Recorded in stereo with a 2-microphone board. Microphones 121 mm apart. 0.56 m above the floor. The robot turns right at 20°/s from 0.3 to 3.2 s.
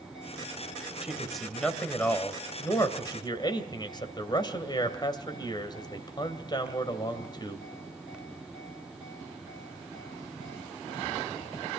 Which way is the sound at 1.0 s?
5° right.